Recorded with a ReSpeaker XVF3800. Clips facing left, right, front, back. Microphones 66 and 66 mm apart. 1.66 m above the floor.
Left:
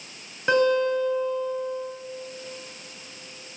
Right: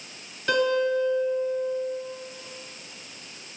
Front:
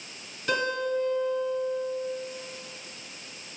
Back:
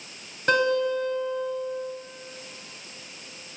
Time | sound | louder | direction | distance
0.5 | a guitar | left 2 dB, back 5 dB | 140° left | 2.5 m